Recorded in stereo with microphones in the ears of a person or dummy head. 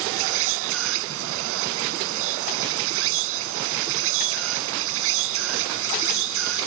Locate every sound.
0.0 s an insect: 75° right (ahead or behind)